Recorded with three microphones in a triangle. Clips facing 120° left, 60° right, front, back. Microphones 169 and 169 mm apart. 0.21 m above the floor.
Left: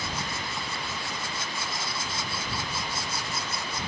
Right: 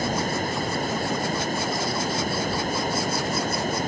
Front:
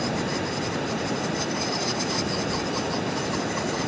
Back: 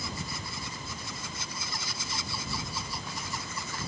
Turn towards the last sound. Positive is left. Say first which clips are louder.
# right 10 dB, front 13 dB
turn(degrees=-15)